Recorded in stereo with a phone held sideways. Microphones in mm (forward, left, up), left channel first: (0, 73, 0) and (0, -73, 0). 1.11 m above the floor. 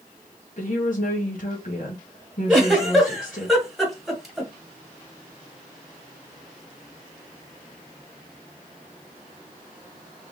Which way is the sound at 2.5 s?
Centre (ahead or behind).